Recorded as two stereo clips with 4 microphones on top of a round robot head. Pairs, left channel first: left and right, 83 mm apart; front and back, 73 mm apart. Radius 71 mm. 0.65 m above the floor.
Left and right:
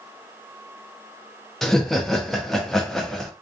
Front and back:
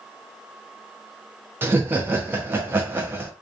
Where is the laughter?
175° left, 0.6 m.